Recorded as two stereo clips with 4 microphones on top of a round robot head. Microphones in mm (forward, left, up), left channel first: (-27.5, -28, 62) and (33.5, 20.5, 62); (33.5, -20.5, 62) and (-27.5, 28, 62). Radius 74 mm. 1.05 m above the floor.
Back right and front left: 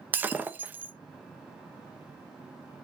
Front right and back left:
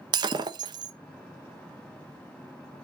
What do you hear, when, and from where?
0.1 s breaking glass: 110° left, 0.5 m